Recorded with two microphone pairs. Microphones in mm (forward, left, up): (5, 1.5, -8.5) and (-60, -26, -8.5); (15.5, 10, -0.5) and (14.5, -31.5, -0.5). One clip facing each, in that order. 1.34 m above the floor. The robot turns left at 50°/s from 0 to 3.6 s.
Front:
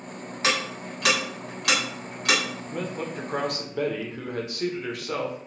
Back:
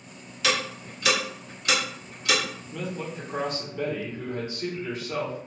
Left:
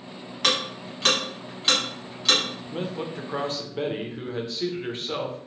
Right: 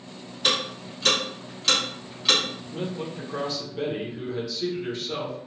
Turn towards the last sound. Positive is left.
turn(degrees=30)